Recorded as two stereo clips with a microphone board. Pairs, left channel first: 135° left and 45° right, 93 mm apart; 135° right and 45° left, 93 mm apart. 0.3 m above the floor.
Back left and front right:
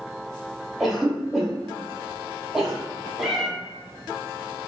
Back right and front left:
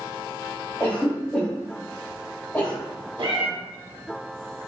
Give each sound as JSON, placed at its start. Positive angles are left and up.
{"t": 0.8, "sound": "a cough", "azimuth_deg": -130, "distance_m": 1.1}
{"t": 3.2, "sound": "a cat meowing", "azimuth_deg": 45, "distance_m": 0.9}